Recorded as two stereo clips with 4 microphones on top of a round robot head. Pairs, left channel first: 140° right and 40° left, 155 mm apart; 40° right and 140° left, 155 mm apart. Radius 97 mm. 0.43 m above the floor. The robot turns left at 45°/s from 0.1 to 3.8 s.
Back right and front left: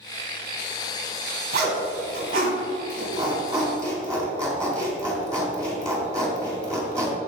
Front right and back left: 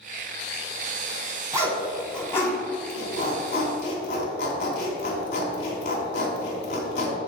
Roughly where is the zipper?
Left.